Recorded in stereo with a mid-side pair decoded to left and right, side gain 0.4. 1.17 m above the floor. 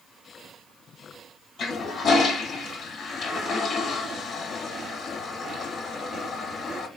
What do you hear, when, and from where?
1.6 s a toilet flushing: 65° left, 0.8 m